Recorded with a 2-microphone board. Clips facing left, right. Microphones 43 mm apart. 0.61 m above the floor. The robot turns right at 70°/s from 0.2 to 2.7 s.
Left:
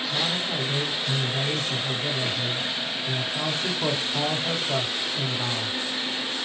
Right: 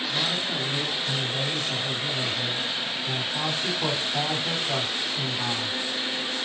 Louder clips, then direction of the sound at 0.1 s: Left 1 dB; 60° left.